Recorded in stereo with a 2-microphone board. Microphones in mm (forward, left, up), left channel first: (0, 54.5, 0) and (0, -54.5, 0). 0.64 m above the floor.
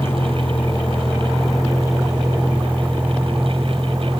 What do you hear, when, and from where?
0.0 s a vehicle: 20° left (ahead or behind); by 4.2 s 25° right (ahead or behind)